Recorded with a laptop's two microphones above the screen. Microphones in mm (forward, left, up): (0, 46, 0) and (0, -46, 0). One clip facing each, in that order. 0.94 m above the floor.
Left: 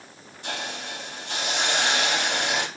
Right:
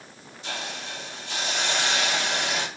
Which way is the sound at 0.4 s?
55° left (ahead or behind).